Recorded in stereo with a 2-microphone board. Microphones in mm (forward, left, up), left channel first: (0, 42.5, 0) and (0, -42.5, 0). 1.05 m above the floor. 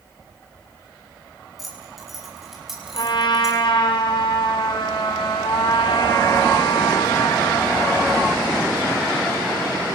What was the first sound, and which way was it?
Keys jangling, centre (ahead or behind).